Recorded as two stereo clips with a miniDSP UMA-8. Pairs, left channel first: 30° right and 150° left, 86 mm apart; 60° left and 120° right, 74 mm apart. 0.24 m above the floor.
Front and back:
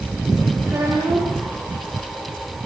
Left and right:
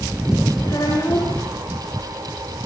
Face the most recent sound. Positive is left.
turn(degrees=95)